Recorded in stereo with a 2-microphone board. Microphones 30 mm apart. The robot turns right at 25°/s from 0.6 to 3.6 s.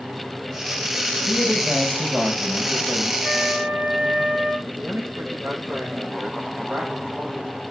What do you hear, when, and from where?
1.3 s a man speaking: 135° right, 4 m; by 3.1 s 85° right, 4 m
3.2 s a flute: 80° right, 8.5 m
4.7 s a man speaking: 70° right (ahead or behind), 7 m